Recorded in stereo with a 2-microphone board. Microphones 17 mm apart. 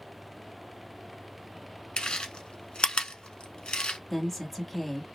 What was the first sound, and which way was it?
Chewing, 65° left (ahead or behind).